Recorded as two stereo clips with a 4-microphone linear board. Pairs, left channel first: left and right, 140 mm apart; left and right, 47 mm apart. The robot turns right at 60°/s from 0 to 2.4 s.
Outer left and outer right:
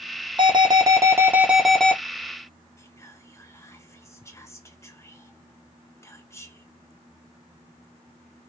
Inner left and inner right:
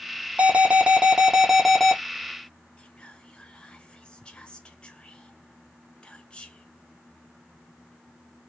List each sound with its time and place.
0.4 s an alarm: 80° right, 0.9 m; by 2.0 s 10° left, 0.9 m
2.8 s whispering: 20° left (ahead or behind), 1.0 m